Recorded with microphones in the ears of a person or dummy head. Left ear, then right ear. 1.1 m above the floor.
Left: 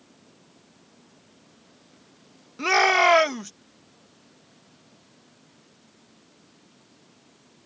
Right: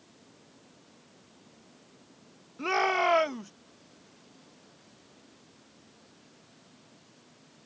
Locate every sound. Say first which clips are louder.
2.6 s a shout: left 8 dB; 65° left (ahead or behind)